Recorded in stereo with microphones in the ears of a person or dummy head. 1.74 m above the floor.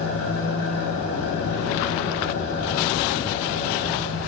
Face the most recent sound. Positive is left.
turn(degrees=65)  # may be behind; listen again after turning